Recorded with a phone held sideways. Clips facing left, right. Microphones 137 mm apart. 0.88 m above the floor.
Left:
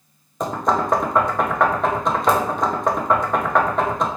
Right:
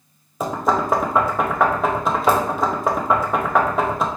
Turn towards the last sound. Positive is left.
turn(degrees=-5)  # may be behind; listen again after turning